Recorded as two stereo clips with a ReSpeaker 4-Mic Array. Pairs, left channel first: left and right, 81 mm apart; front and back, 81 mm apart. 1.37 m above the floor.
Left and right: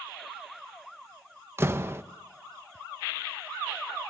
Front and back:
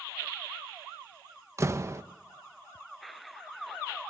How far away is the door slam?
About 0.7 m.